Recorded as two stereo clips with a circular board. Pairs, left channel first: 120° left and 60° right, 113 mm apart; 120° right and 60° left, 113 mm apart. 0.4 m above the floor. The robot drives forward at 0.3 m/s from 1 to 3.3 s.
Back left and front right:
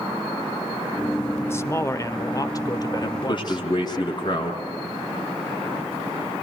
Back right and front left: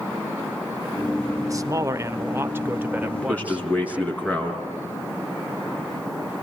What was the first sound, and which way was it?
A man speaking, 75° left.